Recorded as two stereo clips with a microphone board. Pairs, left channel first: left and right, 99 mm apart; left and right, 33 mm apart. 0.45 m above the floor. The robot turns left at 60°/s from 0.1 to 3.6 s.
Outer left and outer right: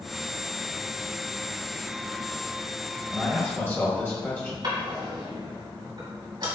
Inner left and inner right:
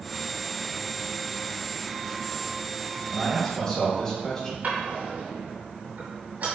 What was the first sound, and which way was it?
A man speaking, 15° left (ahead or behind).